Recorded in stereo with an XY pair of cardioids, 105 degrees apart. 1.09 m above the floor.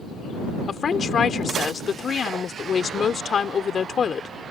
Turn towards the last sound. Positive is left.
turn(degrees=45)